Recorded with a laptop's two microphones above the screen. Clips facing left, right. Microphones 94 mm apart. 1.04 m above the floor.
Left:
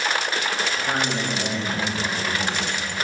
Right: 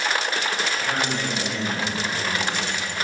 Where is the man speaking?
30° left (ahead or behind), 3 m; by 2.8 s 5° left (ahead or behind), 3 m.